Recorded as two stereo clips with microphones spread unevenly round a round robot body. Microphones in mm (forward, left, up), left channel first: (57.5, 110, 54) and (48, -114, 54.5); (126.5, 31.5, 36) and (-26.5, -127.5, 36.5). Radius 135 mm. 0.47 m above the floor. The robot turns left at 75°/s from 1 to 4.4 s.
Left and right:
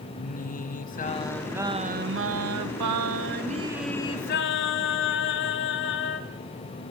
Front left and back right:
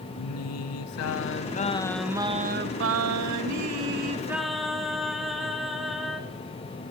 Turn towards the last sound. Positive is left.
turn(degrees=135)